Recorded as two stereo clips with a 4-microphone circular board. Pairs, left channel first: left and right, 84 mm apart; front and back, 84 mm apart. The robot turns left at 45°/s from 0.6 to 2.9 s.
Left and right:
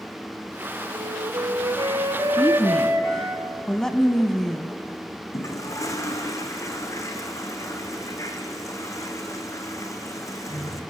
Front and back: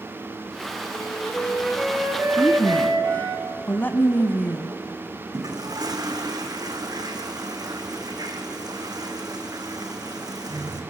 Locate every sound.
0.9 s a flute: 65° right, 2 m; by 3.4 s 150° right, 2 m
2.4 s a woman speaking: 40° left, 1.1 m; by 4.7 s 15° left, 1.1 m
5.3 s a toilet flushing: 140° left, 2.5 m